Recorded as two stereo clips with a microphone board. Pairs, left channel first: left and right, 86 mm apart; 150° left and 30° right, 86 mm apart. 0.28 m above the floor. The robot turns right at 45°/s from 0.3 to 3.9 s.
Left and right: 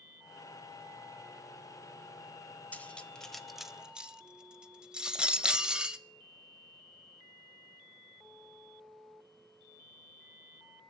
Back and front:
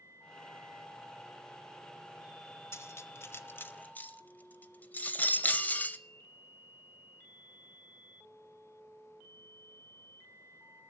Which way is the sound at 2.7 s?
145° left.